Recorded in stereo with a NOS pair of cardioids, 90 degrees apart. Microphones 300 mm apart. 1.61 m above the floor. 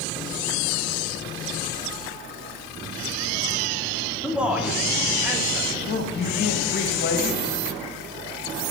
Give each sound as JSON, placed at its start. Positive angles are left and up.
{"t": 4.2, "sound": "a man speaking", "azimuth_deg": -5, "distance_m": 1.8}
{"t": 5.8, "sound": "a man speaking", "azimuth_deg": 35, "distance_m": 2.0}